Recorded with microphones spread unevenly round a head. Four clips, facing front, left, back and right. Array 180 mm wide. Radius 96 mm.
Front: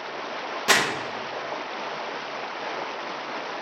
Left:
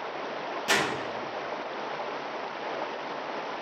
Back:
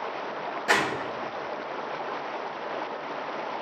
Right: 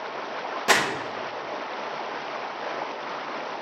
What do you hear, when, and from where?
0.7 s crumpling: 70° right, 1.0 m